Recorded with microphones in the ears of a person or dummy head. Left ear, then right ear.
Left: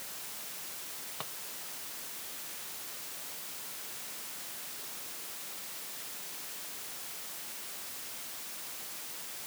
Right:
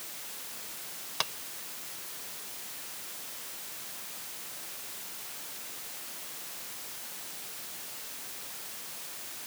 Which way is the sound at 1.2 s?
70° right (ahead or behind).